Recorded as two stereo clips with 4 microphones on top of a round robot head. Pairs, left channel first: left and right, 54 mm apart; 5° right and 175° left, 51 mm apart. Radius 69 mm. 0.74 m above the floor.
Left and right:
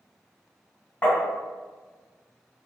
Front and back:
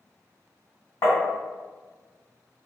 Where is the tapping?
25° left, 1.5 m.